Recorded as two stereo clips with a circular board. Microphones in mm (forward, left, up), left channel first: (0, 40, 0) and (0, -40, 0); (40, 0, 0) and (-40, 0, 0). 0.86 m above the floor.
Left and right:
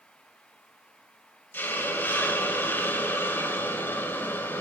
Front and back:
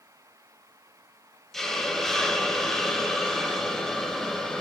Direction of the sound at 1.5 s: 80° left.